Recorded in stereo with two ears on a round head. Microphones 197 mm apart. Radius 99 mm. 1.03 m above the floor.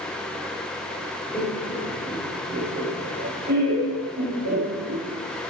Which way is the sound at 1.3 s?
10° left (ahead or behind).